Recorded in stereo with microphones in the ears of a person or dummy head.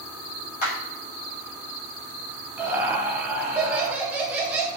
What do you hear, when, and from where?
0.6 s a clap: 45° left (ahead or behind), 1.0 m
2.6 s laughter: 10° right (ahead or behind), 0.7 m